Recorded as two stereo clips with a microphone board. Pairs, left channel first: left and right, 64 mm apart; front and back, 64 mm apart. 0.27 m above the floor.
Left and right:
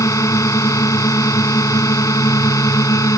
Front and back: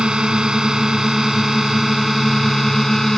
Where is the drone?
105° left; by 3.2 s 85° left.